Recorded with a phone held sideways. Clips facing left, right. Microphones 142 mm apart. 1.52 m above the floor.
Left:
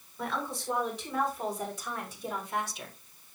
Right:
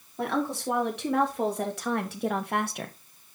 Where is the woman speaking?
85° right, 4.5 m; by 3.0 s 60° right (ahead or behind), 1.4 m.